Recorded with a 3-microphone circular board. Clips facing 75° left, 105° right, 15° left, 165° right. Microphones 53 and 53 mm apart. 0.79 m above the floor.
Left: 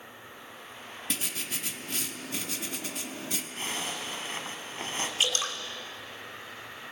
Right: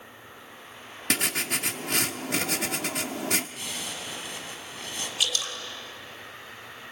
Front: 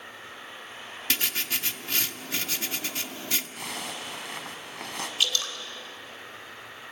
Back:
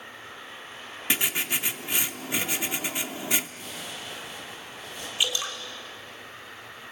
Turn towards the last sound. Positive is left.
turn(degrees=125)